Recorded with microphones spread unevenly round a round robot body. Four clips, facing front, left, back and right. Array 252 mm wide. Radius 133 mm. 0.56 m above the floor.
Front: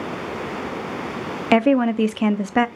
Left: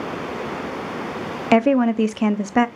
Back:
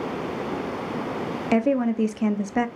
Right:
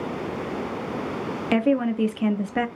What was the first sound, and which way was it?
A woman speaking, 45° left.